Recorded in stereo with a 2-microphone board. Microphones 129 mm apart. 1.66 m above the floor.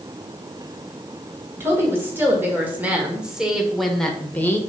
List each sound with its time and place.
1.6 s a woman speaking: 20° right (ahead or behind), 2.5 m; by 4.6 s 20° left (ahead or behind), 1.1 m